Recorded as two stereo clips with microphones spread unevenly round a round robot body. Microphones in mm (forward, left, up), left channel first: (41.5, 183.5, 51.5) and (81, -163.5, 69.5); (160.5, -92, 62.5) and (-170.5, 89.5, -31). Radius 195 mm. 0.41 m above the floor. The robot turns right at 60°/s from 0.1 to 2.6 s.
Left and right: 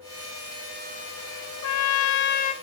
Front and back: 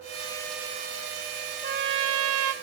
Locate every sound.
1.6 s a trumpet: 105° left, 0.5 m; by 2.5 s 160° left, 0.5 m